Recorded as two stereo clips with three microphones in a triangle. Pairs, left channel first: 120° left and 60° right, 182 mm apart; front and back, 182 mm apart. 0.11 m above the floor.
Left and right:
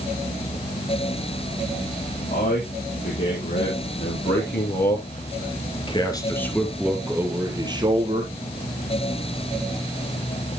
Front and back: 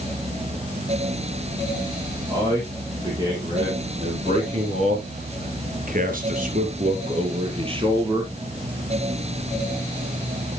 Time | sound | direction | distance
2.3 | a man speaking | 110° left | 5.5 m